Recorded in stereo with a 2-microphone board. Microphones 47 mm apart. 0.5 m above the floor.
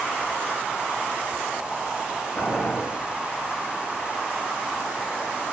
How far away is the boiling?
About 2.5 m.